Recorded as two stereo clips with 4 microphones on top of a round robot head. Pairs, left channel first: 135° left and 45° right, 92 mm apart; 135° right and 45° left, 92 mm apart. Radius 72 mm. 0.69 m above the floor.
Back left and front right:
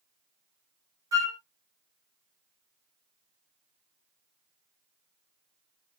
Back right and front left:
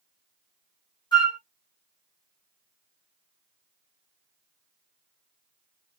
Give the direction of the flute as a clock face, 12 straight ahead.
3 o'clock.